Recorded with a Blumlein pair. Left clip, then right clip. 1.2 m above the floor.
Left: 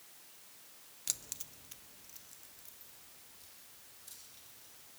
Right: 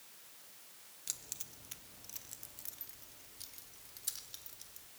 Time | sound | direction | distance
1.1 | keys jangling | 20° left | 0.7 m